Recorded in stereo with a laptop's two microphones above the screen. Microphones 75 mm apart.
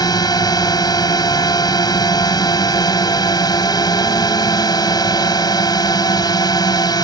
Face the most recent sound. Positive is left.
turn(degrees=65)  # may be behind; listen again after turning